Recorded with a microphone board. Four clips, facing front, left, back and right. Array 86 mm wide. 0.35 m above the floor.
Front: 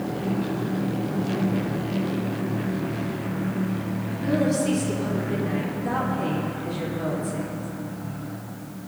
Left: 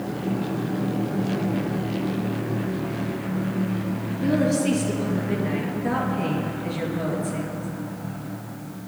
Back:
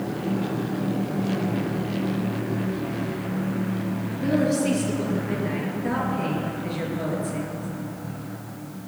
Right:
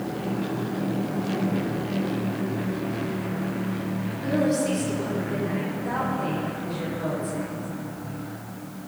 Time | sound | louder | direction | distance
4.2 | a woman speaking | left 2 dB, back 1 dB | 130° left | 5.5 m